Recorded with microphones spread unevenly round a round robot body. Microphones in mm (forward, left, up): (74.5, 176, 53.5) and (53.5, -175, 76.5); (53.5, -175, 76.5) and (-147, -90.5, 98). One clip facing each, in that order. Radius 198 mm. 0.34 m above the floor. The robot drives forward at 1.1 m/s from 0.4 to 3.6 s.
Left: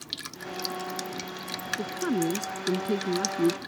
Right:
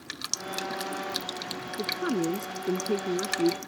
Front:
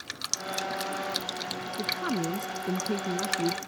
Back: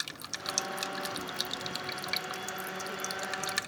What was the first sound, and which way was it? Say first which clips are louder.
A man speaking: left 1 dB, front 11 dB; 10° left.